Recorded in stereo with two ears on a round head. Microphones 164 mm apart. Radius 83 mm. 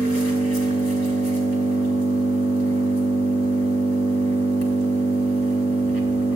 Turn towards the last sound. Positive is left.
turn(degrees=85)